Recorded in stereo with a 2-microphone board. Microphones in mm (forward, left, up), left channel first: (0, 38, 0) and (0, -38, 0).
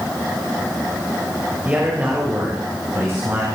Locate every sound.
1.6 s a man speaking: 20° right (ahead or behind), 2.5 m; by 3.5 s 40° right (ahead or behind), 3 m